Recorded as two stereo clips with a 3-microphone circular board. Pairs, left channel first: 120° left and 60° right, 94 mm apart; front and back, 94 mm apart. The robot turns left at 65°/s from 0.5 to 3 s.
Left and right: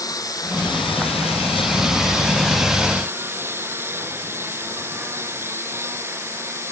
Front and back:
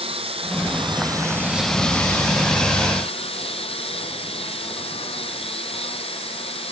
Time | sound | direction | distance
0.0 | a lawn mower | 170° left | ?